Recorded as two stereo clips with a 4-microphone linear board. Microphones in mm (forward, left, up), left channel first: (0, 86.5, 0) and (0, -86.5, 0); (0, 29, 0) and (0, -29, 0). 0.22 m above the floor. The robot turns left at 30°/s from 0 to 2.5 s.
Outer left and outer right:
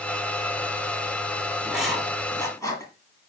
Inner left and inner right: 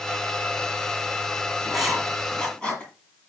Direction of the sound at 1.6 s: 10° right (ahead or behind).